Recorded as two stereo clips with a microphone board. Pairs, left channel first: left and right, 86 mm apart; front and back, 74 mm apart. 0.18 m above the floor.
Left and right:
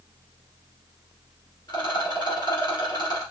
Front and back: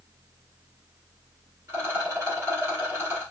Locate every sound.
1.7 s a rattle: 125° left, 2.5 m